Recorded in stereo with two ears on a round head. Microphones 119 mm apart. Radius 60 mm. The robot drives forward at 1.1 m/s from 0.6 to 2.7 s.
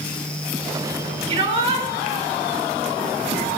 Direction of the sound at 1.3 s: 40° right (ahead or behind).